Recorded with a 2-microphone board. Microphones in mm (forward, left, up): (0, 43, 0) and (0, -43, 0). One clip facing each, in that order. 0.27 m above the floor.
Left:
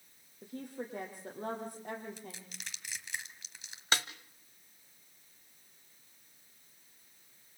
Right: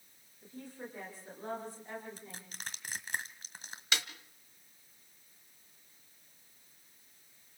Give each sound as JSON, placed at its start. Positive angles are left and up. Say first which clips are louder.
{"t": 0.4, "sound": "a woman speaking", "louder": "left 4 dB", "side_deg": 65, "distance_m": 9.5}
{"t": 2.2, "sound": "crushing", "louder": "even", "side_deg": -45, "distance_m": 1.8}
{"t": 3.9, "sound": "a snare drum", "louder": "left 3 dB", "side_deg": 40, "distance_m": 1.4}